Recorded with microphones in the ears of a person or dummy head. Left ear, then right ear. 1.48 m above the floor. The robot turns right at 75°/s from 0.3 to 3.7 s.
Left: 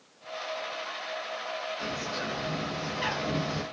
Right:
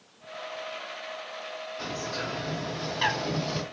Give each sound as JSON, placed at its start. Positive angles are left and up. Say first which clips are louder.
{"t": 1.8, "sound": "a bird", "louder": "even", "azimuth_deg": 180, "distance_m": 1.6}